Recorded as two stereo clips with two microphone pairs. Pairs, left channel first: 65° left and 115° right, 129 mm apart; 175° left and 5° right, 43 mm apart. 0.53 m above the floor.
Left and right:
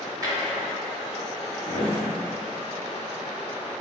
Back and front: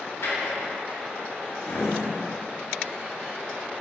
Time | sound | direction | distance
0.2 | a drawer | straight behind | 1.2 m